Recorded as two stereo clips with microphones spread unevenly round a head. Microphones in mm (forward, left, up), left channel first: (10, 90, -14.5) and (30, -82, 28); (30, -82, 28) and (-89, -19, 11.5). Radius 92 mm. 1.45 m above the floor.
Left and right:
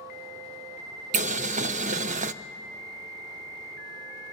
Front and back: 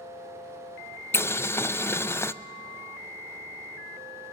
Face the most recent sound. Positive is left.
turn(degrees=-90)